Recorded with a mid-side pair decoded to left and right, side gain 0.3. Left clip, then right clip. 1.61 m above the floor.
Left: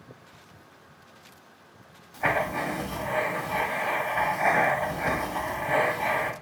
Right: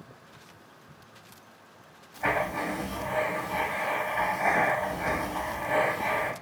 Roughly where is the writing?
Ahead left.